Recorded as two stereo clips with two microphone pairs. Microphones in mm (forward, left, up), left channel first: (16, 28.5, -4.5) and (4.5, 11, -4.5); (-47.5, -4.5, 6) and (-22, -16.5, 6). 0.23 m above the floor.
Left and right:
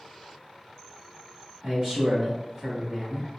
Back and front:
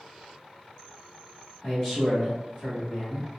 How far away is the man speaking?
About 1.1 m.